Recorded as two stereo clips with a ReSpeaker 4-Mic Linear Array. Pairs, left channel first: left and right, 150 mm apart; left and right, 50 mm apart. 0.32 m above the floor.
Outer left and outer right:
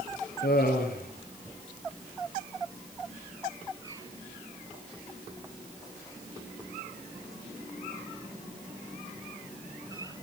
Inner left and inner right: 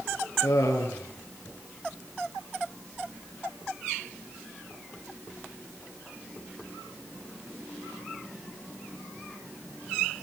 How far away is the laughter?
About 5.5 m.